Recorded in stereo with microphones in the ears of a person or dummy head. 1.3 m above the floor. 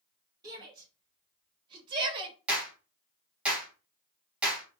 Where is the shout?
25° right (ahead or behind), 2 m; by 2.4 s 30° right (ahead or behind), 0.8 m.